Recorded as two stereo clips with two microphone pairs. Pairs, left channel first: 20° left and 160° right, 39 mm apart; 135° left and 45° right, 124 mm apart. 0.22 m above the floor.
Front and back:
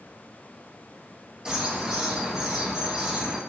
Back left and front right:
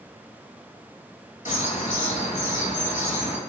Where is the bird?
130° left, 0.7 m.